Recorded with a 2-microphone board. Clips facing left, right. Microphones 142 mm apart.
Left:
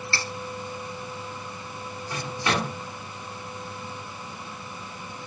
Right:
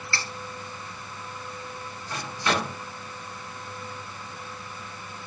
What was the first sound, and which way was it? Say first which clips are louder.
Cutlery clinking: left 1 dB; 30° left (ahead or behind).